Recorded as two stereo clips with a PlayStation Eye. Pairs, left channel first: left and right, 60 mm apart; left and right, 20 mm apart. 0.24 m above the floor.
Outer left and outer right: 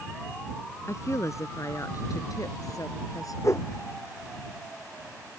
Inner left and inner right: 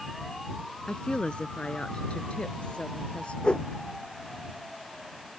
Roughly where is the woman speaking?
Left.